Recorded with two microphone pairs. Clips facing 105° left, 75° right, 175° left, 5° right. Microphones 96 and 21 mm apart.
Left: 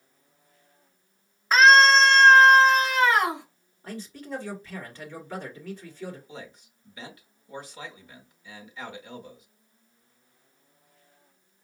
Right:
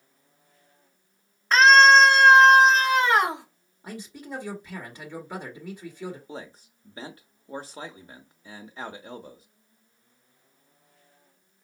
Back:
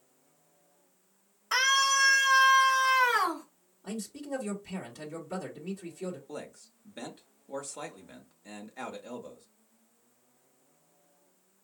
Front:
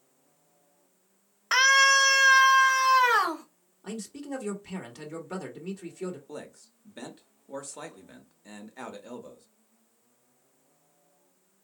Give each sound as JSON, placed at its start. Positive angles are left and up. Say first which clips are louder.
{"t": 1.5, "sound": "a scream", "louder": "right 1 dB, front 5 dB", "azimuth_deg": 25, "distance_m": 1.3}
{"t": 3.8, "sound": "a man speaking", "louder": "left 1 dB, front 1 dB", "azimuth_deg": -20, "distance_m": 1.4}
{"t": 6.3, "sound": "a man speaking", "louder": "right 3 dB, even", "azimuth_deg": -95, "distance_m": 0.9}